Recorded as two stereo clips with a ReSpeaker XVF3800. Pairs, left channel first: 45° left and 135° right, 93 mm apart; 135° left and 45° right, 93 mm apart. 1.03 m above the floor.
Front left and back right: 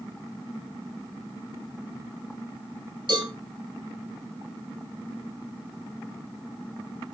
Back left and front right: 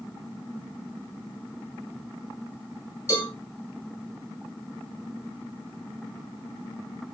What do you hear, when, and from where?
3.1 s a cowbell: 165° right, 6 m